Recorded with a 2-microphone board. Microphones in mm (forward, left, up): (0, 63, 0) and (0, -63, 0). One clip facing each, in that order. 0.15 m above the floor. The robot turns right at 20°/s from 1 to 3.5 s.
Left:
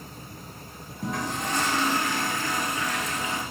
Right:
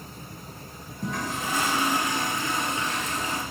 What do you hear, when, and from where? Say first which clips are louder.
1.0 s a toilet flushing: left 1 dB; straight behind, 1.2 m; by 3.4 s 135° right, 1.2 m